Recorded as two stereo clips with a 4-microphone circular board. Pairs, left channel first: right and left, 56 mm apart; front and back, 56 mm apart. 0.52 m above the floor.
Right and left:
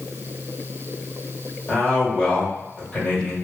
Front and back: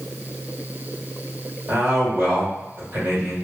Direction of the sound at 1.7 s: 155° right.